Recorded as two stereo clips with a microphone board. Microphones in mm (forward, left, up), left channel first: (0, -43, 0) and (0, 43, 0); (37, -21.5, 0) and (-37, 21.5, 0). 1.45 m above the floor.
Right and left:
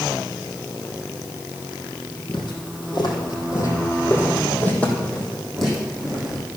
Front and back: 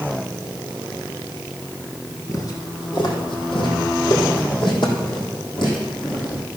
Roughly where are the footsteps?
Right.